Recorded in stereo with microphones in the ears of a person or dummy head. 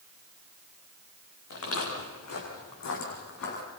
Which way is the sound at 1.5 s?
75° left (ahead or behind).